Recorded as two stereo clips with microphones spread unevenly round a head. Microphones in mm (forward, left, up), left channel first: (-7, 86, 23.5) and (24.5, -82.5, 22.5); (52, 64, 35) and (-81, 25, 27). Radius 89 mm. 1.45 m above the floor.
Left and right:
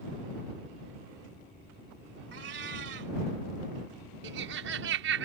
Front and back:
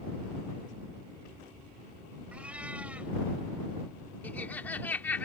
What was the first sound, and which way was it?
A cat meowing, 80° right.